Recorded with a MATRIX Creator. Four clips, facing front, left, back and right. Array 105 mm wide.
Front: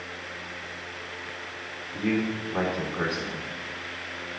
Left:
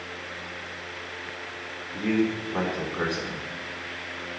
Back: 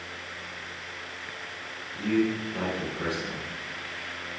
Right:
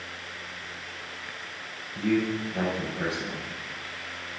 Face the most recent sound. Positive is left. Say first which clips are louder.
# left 1 dB, back 1 dB
turn(degrees=55)